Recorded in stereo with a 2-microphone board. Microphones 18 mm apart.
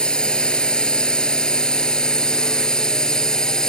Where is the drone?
55° left (ahead or behind); by 3.7 s 35° left (ahead or behind).